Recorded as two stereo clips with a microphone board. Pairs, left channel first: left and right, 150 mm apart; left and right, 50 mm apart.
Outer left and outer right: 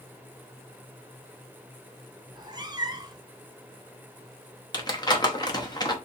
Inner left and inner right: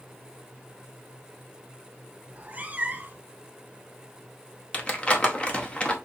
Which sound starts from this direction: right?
A cat meowing, at 2.3 s.